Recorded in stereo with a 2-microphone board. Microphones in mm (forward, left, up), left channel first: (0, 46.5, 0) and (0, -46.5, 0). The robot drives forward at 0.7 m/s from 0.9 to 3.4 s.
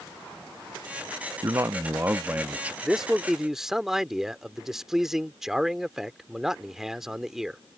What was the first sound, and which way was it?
A man speaking, 35° right (ahead or behind).